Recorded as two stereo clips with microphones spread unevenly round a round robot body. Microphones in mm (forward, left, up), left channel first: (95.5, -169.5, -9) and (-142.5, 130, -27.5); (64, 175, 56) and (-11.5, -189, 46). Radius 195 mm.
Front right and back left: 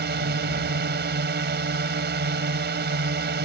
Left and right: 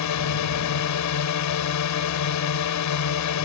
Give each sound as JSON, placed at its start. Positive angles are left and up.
{"t": 0.0, "sound": "a drone", "azimuth_deg": 75}